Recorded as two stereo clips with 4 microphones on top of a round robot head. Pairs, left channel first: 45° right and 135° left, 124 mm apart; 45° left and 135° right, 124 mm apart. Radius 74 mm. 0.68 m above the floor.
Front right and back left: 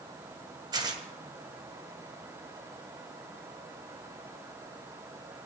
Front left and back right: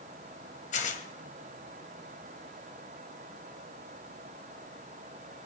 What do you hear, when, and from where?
0.7 s tearing paper: 75° left, 2 m